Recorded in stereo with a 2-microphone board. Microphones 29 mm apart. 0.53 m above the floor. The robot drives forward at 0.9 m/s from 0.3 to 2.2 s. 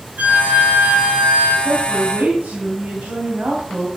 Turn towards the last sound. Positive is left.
turn(degrees=-75)  # may be behind; listen again after turning